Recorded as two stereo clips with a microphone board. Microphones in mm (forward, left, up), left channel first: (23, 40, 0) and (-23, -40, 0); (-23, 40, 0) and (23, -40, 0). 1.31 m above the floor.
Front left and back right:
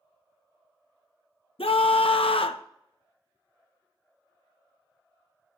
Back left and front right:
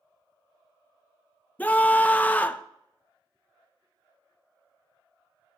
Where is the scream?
45° left, 0.8 m.